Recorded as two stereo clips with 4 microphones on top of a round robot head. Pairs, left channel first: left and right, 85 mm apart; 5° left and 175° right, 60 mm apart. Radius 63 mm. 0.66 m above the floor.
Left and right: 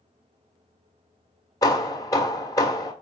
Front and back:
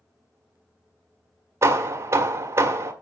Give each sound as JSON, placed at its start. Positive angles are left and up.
{"t": 1.6, "sound": "hammering", "azimuth_deg": 145, "distance_m": 1.7}